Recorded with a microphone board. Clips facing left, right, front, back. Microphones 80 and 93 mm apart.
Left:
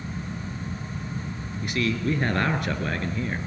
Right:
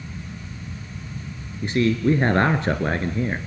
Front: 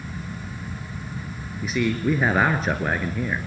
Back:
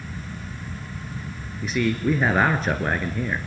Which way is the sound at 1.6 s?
90° right.